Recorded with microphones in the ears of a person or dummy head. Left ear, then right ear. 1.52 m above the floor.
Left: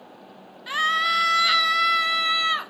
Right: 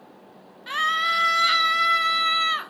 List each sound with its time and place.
0.7 s a scream: 5° left (ahead or behind), 1.4 m